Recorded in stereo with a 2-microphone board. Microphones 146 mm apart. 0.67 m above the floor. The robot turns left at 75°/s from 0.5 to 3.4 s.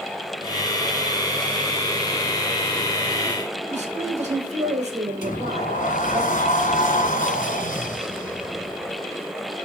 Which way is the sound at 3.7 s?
50° right (ahead or behind).